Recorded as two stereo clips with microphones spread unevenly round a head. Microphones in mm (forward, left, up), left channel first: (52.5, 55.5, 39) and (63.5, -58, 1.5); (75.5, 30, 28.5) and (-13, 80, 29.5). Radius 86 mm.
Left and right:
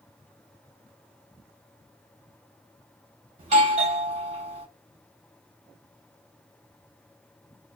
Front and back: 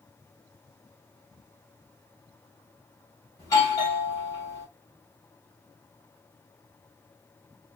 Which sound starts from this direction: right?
A doorbell, at 3.4 s.